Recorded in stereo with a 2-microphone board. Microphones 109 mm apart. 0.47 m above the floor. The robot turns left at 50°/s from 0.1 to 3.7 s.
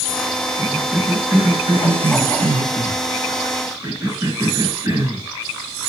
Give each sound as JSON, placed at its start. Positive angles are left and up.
{"t": 0.6, "sound": "a cough", "side_deg": 0, "distance_m": 5.5}